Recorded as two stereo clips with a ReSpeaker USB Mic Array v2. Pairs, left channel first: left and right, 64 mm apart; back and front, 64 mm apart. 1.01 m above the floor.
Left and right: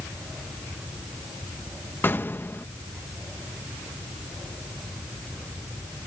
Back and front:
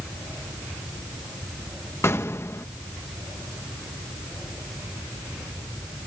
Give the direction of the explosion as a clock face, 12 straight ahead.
7 o'clock.